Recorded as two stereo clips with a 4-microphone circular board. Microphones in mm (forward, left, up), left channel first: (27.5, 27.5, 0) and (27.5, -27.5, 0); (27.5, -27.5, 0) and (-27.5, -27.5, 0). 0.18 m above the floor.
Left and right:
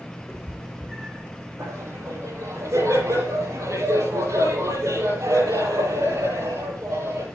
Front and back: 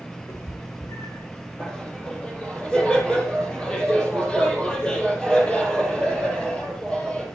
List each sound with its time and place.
0.3 s a cat meowing: 5° right, 9.5 m
1.6 s laughter: 75° right, 4.5 m